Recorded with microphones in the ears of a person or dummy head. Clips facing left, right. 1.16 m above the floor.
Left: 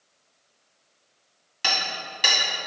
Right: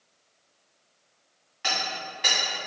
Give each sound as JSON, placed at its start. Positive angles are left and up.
{"t": 1.6, "sound": "hammering", "side_deg": 55, "distance_m": 1.8}